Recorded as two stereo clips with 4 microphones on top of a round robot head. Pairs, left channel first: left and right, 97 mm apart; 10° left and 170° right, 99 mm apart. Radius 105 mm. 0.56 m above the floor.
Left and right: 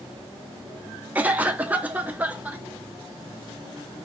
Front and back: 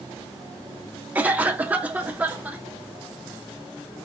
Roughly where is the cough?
Behind right.